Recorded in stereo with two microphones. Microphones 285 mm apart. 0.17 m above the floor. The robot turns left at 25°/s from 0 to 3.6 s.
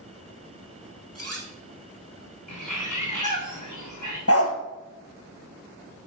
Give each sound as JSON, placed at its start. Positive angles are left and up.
{"t": 1.1, "sound": "cutlery clinking", "side_deg": -55, "distance_m": 1.4}
{"t": 2.5, "sound": "a bird", "side_deg": 80, "distance_m": 3.0}
{"t": 4.3, "sound": "a dog barking", "side_deg": 50, "distance_m": 1.1}